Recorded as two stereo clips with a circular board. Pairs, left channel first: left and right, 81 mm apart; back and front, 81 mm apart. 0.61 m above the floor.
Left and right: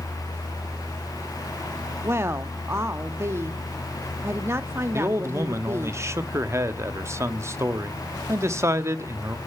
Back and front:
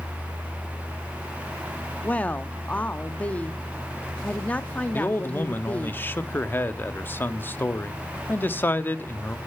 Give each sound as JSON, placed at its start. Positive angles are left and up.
{"t": 2.0, "sound": "a woman speaking", "azimuth_deg": -120, "distance_m": 0.6}
{"t": 4.9, "sound": "a man speaking", "azimuth_deg": -125, "distance_m": 0.7}